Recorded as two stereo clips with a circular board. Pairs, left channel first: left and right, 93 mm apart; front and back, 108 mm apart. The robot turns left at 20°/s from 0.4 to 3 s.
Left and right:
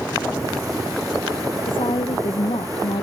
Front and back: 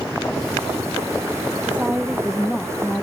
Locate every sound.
1.6 s a woman speaking: 105° left; by 3.0 s 75° left